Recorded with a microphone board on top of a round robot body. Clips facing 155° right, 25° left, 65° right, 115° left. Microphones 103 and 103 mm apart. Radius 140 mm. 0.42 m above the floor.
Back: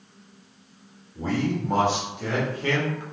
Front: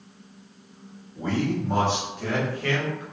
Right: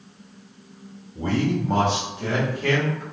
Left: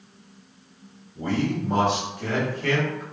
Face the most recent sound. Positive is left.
turn(degrees=-165)